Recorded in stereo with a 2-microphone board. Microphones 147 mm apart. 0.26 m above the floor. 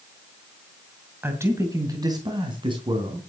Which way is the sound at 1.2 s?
15° right (ahead or behind).